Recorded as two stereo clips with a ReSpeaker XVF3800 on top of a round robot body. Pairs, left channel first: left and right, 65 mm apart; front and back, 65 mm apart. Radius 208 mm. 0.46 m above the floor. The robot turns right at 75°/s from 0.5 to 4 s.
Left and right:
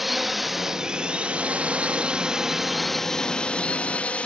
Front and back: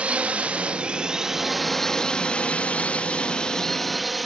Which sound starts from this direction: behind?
A drone, at 0.0 s.